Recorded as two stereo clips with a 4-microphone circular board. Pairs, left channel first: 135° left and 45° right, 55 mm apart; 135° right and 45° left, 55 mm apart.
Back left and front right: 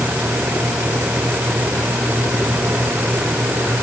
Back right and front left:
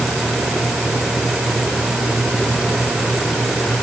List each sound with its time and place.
Only background noise.